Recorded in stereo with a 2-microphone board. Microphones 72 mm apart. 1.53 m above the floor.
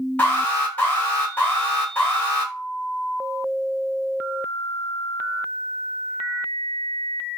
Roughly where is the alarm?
Left.